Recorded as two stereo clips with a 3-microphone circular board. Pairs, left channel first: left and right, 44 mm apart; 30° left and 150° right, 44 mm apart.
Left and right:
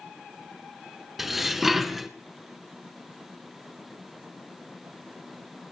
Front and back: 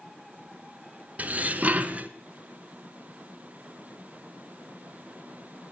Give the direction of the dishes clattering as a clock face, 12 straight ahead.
6 o'clock.